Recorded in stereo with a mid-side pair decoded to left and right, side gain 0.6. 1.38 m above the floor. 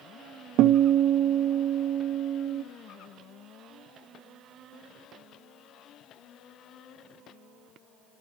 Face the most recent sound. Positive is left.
turn(degrees=-65)